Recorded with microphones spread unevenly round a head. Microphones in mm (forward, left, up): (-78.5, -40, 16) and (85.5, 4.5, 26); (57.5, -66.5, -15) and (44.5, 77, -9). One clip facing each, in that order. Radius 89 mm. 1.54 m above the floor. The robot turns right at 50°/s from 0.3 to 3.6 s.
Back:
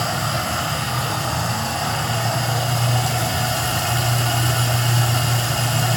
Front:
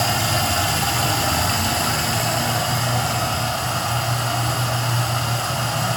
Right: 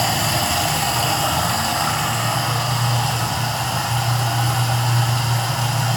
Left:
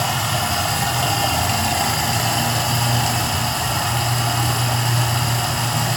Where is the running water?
35° right, 3 m; by 6.0 s 130° left, 3 m.